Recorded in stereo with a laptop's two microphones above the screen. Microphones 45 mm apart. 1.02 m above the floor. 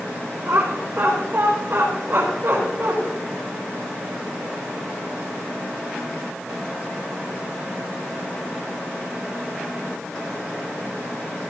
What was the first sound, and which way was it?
Laughter, 20° right (ahead or behind).